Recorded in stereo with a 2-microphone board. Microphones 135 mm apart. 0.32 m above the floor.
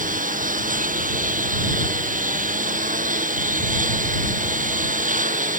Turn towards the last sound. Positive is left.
turn(degrees=-75)  # may be behind; listen again after turning